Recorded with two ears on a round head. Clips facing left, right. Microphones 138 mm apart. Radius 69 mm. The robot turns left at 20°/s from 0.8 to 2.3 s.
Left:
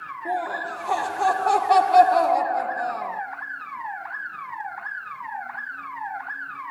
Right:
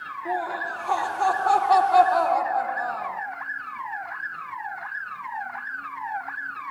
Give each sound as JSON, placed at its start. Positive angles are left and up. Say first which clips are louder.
{"t": 0.2, "sound": "laughter", "louder": "left 1 dB", "side_deg": 15, "distance_m": 0.9}